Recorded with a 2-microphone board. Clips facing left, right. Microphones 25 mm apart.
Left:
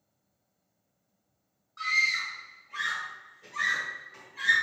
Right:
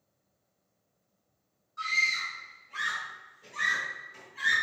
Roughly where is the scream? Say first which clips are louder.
Left 1 dB; left.